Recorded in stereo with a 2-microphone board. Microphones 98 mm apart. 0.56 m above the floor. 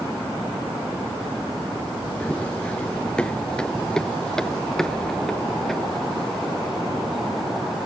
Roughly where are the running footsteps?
Centre.